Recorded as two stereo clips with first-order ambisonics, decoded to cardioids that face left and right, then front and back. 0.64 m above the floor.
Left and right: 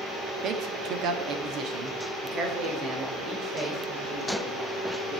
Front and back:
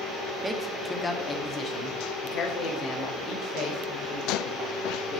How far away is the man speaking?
About 1.0 m.